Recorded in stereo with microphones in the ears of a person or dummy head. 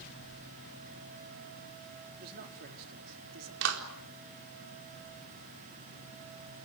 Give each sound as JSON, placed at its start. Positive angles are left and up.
{"t": 2.2, "sound": "a man speaking", "side_deg": -55, "distance_m": 4.0}
{"t": 3.6, "sound": "a clap", "side_deg": -70, "distance_m": 4.0}